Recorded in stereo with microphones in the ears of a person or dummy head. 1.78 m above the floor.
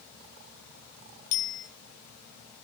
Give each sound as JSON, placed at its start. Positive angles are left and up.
{"t": 1.3, "sound": "a bicycle bell", "side_deg": 50, "distance_m": 6.0}